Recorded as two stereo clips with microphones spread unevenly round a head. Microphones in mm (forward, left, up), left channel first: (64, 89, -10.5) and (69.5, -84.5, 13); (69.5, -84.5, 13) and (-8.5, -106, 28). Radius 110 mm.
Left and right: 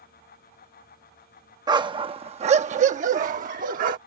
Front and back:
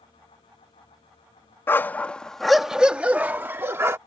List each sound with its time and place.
1.7 s a dog barking: 45° right; by 4.0 s 120° right